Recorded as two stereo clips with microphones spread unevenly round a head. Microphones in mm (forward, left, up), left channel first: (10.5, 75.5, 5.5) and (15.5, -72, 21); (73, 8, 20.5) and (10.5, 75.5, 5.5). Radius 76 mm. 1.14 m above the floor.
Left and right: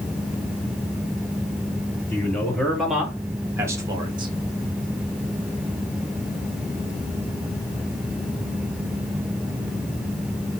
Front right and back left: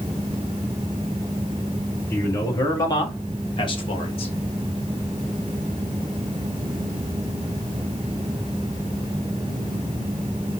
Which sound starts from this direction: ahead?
A man speaking, at 2.1 s.